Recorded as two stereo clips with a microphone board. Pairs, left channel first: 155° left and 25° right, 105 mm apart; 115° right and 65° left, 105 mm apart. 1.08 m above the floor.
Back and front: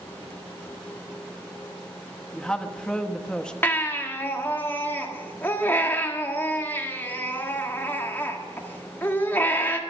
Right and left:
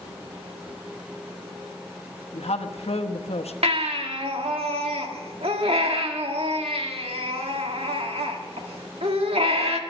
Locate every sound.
2.3 s a woman speaking: 120° right, 1.1 m
3.6 s a baby crying: 90° left, 1.6 m